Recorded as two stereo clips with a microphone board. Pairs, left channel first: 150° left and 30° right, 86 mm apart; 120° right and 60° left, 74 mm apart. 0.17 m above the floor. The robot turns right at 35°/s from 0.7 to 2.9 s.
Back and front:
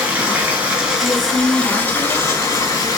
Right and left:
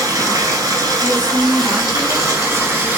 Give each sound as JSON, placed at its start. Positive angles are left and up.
{"t": 0.0, "sound": "running water", "azimuth_deg": 45, "distance_m": 0.9}
{"t": 1.0, "sound": "a woman speaking", "azimuth_deg": -110, "distance_m": 1.3}